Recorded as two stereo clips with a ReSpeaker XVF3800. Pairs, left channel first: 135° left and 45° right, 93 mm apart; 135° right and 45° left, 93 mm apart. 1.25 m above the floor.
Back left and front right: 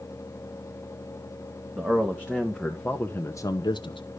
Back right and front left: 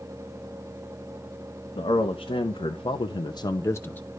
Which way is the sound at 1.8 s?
115° right.